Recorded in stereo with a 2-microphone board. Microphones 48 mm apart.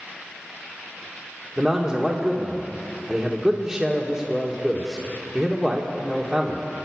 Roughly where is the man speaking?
Centre.